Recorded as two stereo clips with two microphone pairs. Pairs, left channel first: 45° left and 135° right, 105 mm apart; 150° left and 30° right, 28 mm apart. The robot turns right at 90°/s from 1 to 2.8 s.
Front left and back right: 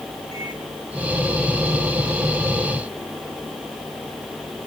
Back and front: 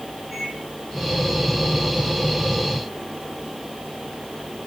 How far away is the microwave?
About 9.5 m.